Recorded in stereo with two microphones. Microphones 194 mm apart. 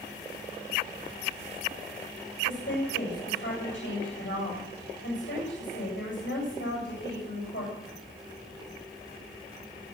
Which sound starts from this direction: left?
A woman speaking, at 2.5 s.